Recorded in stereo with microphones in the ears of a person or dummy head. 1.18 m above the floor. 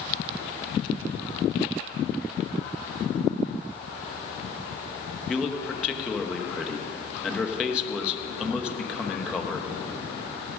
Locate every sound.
5.3 s a man speaking: 15° left (ahead or behind), 1.2 m